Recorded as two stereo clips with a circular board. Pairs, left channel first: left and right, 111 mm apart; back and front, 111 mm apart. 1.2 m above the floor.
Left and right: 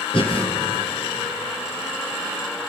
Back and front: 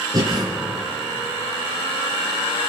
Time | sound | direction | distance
0.1 | breathing | 55° left | 4.5 m